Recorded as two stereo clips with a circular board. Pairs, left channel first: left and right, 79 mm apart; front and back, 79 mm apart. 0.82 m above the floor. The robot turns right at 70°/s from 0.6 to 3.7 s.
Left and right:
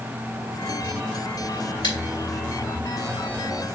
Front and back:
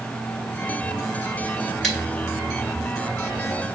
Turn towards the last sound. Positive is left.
turn(degrees=-145)